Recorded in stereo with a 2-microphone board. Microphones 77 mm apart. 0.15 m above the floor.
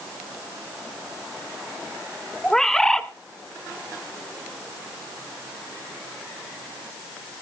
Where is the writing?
No writing in this recording.